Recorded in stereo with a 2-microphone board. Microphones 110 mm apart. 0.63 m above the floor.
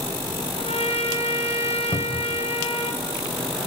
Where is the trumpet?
70° left (ahead or behind), 3.5 m.